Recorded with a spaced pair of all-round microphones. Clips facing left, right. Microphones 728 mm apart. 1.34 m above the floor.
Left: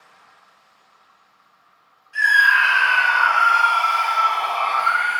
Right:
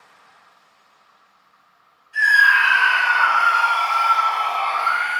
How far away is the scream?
About 1.5 m.